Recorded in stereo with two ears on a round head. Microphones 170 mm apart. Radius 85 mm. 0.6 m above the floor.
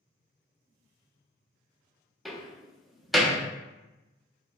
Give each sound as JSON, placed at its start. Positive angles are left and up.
{"t": 2.2, "sound": "a door slam", "side_deg": 0, "distance_m": 0.6}